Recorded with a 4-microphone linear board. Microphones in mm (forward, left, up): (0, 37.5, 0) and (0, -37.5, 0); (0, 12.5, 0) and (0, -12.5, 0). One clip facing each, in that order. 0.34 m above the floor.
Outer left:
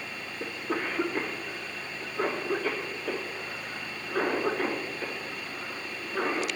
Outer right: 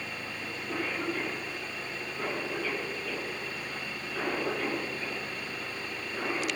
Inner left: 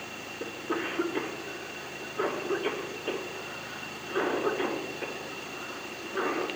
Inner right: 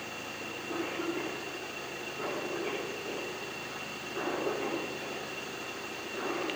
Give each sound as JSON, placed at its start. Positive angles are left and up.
{"t": 0.4, "sound": "a cough", "side_deg": 55, "distance_m": 4.5}